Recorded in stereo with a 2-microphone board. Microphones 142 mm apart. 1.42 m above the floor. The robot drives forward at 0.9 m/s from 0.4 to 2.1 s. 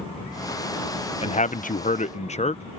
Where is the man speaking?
45° left (ahead or behind); by 2.6 s 50° left (ahead or behind).